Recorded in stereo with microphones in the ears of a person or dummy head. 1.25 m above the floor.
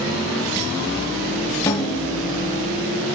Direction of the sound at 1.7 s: 15° left (ahead or behind).